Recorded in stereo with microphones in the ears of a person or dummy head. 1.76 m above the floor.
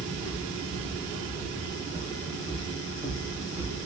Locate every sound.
0.1 s footsteps: 45° left (ahead or behind), 2.5 m; by 3.9 s 25° right (ahead or behind), 2.5 m